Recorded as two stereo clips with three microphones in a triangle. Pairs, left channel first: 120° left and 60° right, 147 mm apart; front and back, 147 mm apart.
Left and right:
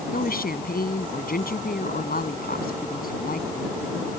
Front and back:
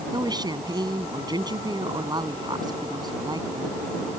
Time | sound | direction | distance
0.1 | a woman speaking | 120° left | ?